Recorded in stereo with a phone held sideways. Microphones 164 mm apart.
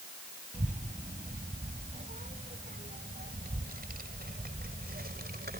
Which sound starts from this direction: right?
A child speaking, at 0.5 s.